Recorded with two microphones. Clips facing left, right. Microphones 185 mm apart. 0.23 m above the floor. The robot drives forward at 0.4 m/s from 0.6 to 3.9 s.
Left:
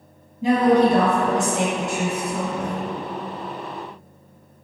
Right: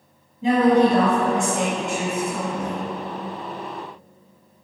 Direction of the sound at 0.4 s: 40° left (ahead or behind).